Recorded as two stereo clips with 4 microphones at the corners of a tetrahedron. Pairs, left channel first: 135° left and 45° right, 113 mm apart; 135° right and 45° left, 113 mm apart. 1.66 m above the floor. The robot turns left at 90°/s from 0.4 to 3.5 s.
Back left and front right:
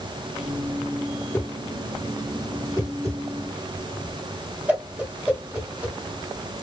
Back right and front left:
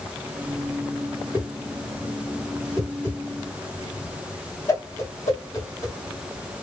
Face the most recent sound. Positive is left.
turn(degrees=-110)